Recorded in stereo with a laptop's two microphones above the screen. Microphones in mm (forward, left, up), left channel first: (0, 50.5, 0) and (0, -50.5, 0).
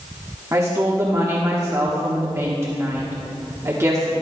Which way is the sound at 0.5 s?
25° right (ahead or behind).